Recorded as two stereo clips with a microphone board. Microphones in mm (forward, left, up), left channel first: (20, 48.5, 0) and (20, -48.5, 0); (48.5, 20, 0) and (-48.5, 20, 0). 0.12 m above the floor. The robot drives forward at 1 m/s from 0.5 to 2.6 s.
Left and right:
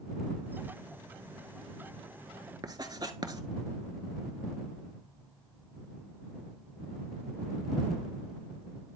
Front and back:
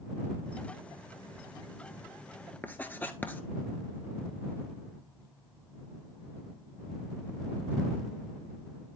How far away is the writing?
About 0.7 m.